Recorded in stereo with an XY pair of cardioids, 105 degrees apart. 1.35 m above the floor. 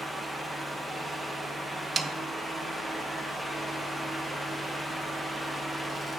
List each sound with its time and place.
0.0 s a fan: 15° right, 1.8 m
2.0 s a snare drum: 35° right, 0.6 m